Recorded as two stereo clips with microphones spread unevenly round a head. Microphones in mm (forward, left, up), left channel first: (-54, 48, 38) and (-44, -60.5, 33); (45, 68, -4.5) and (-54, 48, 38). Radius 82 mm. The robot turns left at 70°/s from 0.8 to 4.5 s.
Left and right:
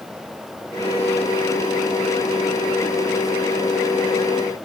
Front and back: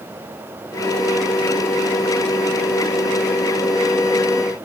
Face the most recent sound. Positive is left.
No sound to turn to.